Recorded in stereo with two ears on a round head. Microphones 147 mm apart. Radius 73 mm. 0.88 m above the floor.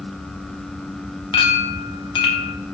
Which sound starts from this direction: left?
A clink, at 1.3 s.